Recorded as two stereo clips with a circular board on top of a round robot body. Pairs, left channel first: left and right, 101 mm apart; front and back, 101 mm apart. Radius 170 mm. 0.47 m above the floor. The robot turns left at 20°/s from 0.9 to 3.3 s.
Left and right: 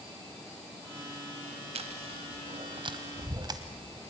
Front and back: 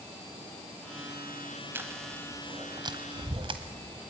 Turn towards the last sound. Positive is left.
turn(degrees=-140)